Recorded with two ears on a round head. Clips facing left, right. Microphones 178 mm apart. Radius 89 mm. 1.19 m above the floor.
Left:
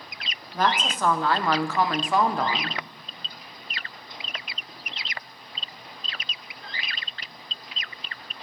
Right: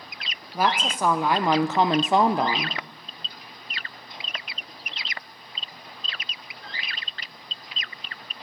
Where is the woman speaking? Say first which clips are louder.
Right 1 dB; 10° right (ahead or behind), 1.6 m.